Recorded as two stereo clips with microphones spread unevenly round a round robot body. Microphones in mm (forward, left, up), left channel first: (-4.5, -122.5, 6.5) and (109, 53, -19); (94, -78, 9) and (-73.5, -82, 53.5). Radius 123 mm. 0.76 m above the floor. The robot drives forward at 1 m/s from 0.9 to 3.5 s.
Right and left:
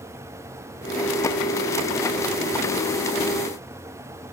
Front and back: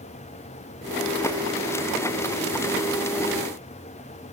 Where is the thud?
I don't hear a thud.